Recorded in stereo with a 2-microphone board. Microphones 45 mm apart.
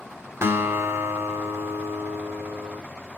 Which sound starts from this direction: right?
A guitar, at 0.4 s.